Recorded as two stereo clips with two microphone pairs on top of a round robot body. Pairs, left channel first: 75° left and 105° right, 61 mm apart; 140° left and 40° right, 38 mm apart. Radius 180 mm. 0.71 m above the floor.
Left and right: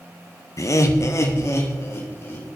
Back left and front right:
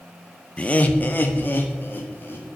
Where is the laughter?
95° left, 1.1 m; by 2.5 s 120° left, 3 m.